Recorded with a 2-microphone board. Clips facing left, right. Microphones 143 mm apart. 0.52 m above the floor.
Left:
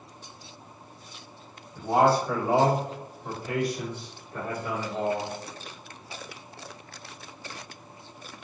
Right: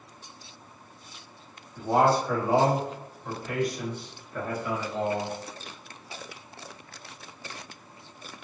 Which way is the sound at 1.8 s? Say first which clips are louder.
Left 1 dB; 10° left (ahead or behind).